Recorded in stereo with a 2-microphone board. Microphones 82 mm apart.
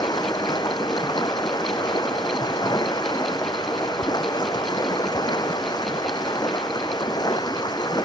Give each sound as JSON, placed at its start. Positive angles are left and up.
{"t": 0.0, "sound": "running water", "side_deg": 55}